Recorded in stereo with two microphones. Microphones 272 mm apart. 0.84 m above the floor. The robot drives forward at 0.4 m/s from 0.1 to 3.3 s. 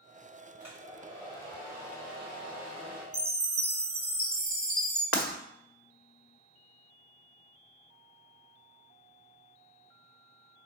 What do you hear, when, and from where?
0.6 s a hair dryer: 5° right (ahead or behind), 3 m
3.1 s a chime: 55° right (ahead or behind), 1.3 m
5.1 s breaking glass: 55° left (ahead or behind), 1.3 m